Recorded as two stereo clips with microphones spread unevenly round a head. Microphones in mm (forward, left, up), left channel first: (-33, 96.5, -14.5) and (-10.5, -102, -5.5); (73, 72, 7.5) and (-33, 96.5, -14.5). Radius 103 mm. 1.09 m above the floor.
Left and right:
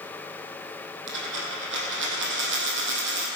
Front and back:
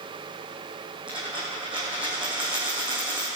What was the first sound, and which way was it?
A dropped coin, 105° right.